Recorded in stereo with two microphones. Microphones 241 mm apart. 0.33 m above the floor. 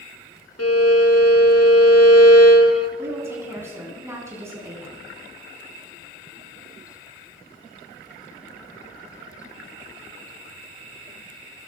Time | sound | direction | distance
0.6 | a violin | 85° left | 1.4 m
3.0 | a woman speaking | 10° right (ahead or behind) | 4.5 m